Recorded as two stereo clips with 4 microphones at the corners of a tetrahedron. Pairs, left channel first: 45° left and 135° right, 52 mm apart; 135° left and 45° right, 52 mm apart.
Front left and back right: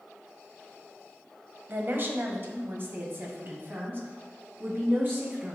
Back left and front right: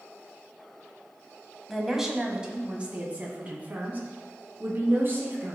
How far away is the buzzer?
I don't hear a buzzer.